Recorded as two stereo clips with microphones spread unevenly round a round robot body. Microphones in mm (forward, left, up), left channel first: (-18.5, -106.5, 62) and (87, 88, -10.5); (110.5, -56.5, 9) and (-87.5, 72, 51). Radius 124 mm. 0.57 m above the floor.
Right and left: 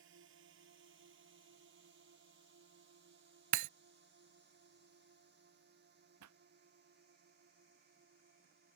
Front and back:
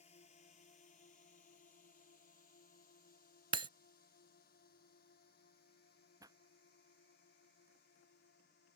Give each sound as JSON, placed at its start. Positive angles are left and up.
{"t": 0.0, "sound": "a drone", "azimuth_deg": 30}
{"t": 3.5, "sound": "breaking glass", "azimuth_deg": 85}
{"t": 6.2, "sound": "a pop", "azimuth_deg": 70}